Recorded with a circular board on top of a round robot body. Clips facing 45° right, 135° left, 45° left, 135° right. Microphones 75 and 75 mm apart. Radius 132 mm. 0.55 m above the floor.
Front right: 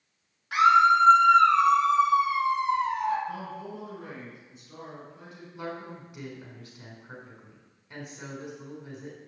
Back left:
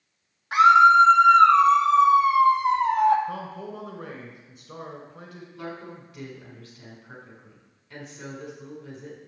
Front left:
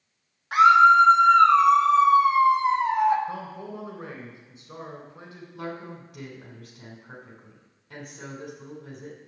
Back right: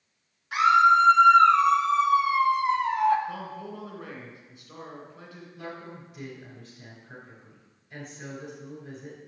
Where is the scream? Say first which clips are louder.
Back left 5 dB, front left 4 dB; 80° left, 3.5 m; by 3.2 s 115° left, 2 m.